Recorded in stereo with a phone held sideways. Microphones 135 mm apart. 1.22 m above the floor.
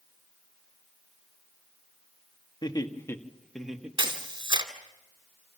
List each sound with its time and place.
2.6 s laughter: 35° left (ahead or behind), 2 m; by 4.6 s 25° right (ahead or behind), 2.5 m
4.0 s a camera shutter: 35° right (ahead or behind), 2.5 m